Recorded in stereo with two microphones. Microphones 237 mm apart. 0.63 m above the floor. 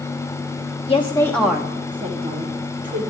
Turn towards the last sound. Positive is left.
turn(degrees=-35)  # may be behind; listen again after turning